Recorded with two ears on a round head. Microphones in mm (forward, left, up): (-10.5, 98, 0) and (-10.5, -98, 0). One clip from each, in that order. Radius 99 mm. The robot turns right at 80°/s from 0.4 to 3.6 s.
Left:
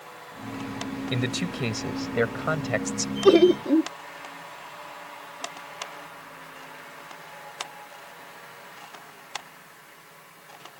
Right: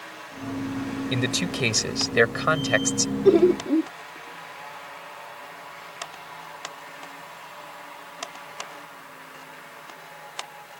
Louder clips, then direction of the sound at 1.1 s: Right 4 dB; 170° right.